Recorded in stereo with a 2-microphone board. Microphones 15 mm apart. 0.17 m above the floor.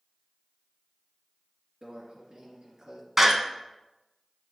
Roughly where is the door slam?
Right.